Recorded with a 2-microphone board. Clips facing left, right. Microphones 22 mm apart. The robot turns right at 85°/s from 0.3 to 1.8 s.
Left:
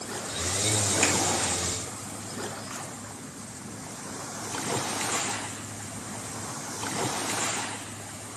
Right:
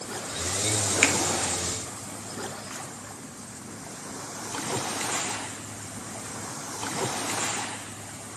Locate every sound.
1.0 s a finger snap: 45° right (ahead or behind), 1.5 m